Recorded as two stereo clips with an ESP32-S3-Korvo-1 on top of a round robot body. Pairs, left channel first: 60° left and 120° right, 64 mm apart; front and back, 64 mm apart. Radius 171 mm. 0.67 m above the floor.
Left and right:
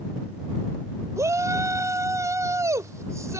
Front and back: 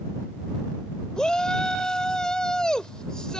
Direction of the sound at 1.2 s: 80° right.